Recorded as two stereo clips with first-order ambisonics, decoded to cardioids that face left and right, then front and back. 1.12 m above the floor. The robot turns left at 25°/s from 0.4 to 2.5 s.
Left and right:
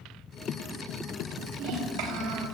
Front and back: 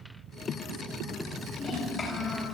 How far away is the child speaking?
About 6 m.